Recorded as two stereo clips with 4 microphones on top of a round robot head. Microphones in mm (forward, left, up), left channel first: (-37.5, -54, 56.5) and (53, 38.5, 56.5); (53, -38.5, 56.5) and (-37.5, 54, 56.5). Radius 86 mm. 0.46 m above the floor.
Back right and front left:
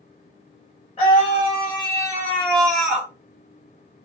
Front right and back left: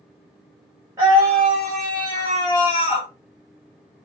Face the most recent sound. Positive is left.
turn(degrees=-35)